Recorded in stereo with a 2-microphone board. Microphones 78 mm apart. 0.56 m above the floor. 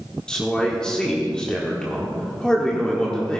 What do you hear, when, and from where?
0.3 s a man speaking: 10° left (ahead or behind), 1.6 m